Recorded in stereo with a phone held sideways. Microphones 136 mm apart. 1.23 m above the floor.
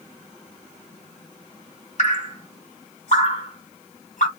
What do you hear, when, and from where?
2.0 s dripping: 60° left (ahead or behind), 1.3 m